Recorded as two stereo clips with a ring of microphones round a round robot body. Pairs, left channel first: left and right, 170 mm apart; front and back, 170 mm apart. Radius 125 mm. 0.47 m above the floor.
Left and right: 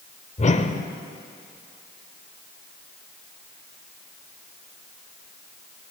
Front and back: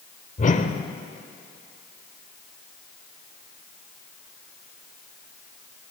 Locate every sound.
0.4 s a whoosh: 45° left, 1.0 m